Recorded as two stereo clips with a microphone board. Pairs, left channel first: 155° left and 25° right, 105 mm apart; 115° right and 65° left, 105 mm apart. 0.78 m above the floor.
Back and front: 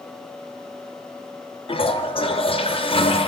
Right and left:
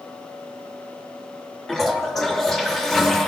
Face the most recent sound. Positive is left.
turn(degrees=160)